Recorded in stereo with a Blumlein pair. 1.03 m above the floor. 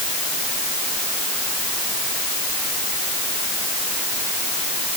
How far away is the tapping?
No tapping in this recording.